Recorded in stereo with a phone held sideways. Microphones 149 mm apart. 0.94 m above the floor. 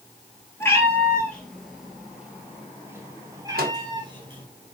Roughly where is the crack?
No crack in this recording.